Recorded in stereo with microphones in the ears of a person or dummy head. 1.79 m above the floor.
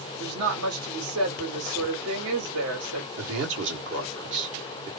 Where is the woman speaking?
90° right, 1.9 m.